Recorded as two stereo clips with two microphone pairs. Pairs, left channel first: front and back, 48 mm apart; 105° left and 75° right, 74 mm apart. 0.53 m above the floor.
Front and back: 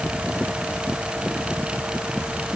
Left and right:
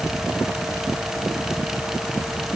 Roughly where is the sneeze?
No sneeze in this recording.